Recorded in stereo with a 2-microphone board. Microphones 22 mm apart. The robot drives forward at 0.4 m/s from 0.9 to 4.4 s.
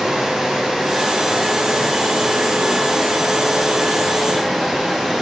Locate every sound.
0.0 s running water: 45° right (ahead or behind), 6 m; by 5.2 s 35° right (ahead or behind), 7.5 m